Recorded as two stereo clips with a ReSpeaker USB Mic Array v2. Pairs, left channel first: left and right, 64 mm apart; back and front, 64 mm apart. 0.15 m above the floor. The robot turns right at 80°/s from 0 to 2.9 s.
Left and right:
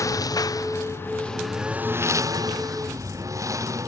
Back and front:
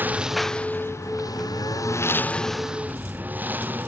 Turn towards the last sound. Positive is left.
turn(degrees=-60)